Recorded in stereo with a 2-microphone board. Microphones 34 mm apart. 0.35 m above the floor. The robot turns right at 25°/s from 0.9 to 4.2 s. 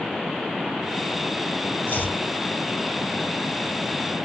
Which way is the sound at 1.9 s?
60° left (ahead or behind).